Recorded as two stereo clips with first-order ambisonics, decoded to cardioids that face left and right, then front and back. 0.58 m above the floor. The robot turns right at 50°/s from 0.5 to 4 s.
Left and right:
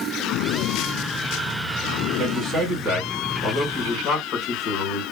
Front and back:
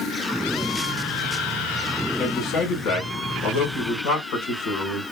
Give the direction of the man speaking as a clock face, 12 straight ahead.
2 o'clock.